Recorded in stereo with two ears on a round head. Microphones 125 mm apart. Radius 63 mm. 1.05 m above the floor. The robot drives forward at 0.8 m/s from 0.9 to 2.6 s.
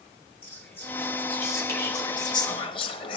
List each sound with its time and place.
0.4 s whispering: 15° left (ahead or behind), 2 m; by 3.2 s 35° left (ahead or behind), 1.0 m